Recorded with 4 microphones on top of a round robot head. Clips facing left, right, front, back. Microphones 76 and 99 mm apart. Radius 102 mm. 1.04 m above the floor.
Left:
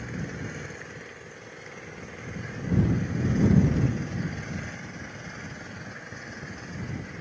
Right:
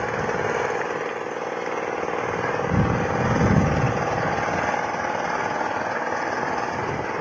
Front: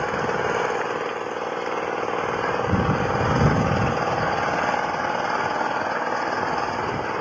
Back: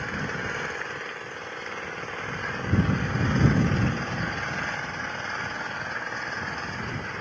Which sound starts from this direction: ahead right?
An engine running, at 0.0 s.